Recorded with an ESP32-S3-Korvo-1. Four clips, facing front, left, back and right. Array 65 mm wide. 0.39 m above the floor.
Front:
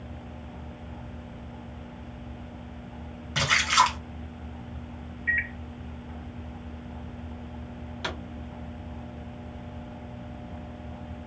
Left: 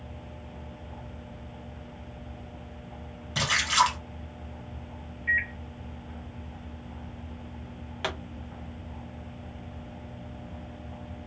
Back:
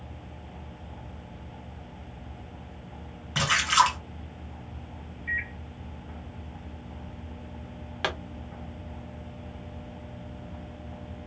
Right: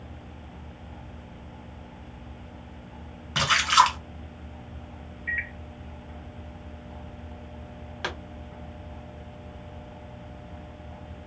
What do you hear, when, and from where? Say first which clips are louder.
3.4 s a splash: right 4 dB, even; 100° right, 1.8 m
5.3 s a microwave: left 4 dB, front 4 dB; straight ahead, 0.8 m
8.0 s a pop: even, back 4 dB; 170° right, 1.1 m